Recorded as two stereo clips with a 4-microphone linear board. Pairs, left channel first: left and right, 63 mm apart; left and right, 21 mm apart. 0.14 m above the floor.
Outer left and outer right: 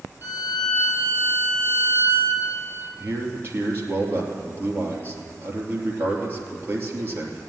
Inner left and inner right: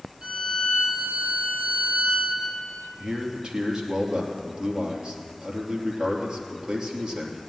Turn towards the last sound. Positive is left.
turn(degrees=-35)  # may be behind; listen again after turning